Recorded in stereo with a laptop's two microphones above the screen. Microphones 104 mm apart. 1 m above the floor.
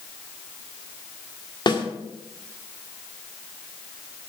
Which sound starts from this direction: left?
A snare drum, at 1.7 s.